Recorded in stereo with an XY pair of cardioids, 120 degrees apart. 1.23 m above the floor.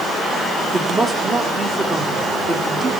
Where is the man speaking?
25° right, 3.5 m.